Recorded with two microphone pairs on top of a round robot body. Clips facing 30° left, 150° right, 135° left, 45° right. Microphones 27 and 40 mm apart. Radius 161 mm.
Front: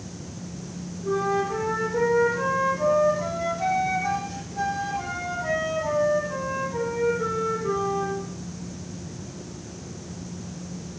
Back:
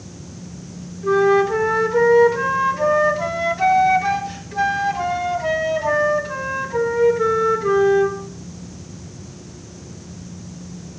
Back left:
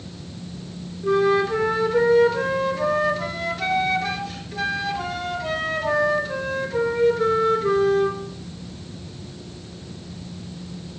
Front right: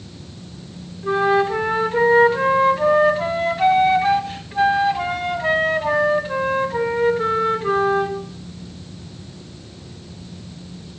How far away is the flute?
About 1.2 m.